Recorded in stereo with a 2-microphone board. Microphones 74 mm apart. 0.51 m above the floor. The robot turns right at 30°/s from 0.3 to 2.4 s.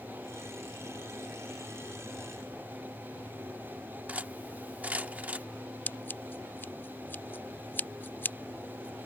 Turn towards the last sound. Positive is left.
turn(degrees=30)  # may be behind; listen again after turning